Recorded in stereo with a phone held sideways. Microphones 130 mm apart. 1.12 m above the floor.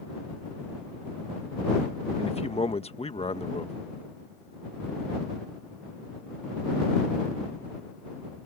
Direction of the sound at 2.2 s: 50° left (ahead or behind).